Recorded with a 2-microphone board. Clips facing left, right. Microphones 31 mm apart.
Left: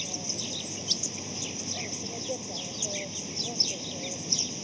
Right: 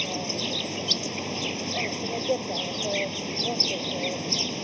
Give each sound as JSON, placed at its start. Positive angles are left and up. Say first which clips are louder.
{"t": 0.0, "sound": "an insect", "louder": "right 7 dB", "side_deg": -40}